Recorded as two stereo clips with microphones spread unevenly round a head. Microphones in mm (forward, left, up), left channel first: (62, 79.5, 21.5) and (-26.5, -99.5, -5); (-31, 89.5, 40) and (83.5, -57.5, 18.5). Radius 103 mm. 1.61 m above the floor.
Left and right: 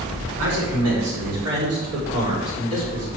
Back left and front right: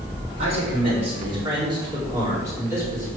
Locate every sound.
0.4 s a man speaking: 115° right, 4.5 m; by 3.1 s 135° right, 4 m